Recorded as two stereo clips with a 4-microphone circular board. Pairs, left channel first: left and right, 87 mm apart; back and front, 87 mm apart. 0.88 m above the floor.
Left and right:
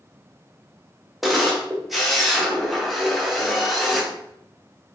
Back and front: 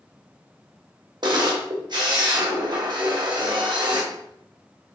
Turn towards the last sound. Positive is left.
turn(degrees=0)